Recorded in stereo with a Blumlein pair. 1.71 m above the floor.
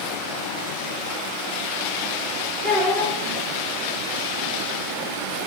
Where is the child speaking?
5° right, 1.6 m.